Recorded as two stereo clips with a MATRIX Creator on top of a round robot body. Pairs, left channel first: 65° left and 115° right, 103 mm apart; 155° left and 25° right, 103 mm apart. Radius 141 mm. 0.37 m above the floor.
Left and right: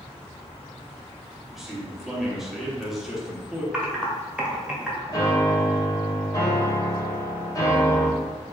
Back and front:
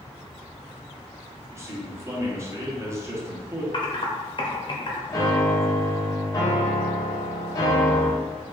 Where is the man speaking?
30° right, 1.2 m.